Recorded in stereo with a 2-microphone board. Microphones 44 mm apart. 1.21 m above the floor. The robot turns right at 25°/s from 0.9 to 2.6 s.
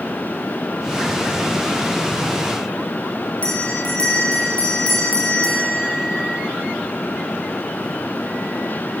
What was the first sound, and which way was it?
A bell, 30° left (ahead or behind).